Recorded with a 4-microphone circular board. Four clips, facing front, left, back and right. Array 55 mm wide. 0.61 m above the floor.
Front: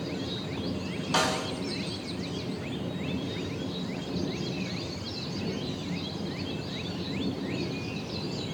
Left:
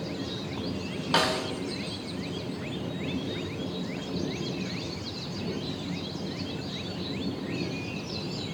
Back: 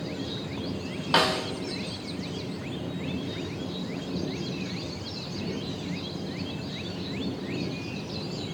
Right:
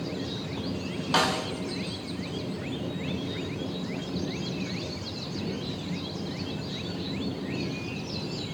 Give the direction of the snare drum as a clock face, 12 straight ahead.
6 o'clock.